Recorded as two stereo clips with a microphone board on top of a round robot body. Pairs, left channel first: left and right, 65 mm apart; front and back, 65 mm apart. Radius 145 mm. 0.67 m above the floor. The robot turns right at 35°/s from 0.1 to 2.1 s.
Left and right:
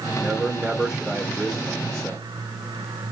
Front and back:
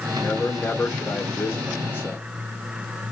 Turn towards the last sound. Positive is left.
turn(degrees=10)